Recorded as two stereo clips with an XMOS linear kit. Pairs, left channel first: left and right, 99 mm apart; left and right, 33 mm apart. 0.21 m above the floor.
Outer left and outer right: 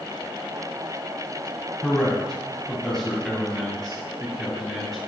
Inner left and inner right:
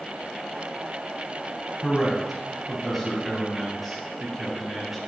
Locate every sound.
1.8 s a man speaking: 5° left (ahead or behind), 1.1 m